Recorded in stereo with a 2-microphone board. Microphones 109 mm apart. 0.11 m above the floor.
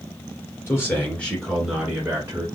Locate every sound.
0.7 s a man speaking: 25° left (ahead or behind), 2 m; by 2.5 s 25° right (ahead or behind), 1.8 m